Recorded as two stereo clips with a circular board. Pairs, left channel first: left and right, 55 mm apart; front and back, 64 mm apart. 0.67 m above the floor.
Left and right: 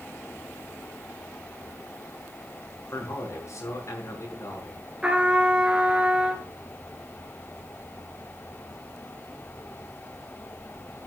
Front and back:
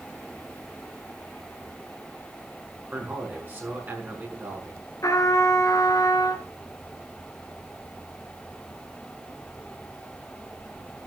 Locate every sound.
2.9 s a man speaking: 120° left, 6 m
5.0 s a trumpet: 20° right, 1.8 m